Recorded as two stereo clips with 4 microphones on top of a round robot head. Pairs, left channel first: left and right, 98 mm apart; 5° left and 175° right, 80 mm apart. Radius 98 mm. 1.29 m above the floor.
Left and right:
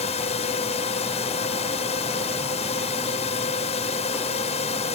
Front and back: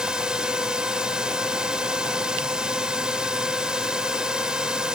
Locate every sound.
0.0 s a drone: 105° left